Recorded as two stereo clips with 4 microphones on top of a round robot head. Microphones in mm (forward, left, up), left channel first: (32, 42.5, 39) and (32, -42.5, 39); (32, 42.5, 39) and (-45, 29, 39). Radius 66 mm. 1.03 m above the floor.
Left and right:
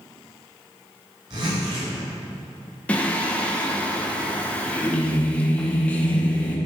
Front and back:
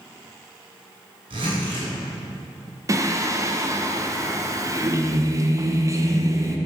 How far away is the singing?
About 1.0 m.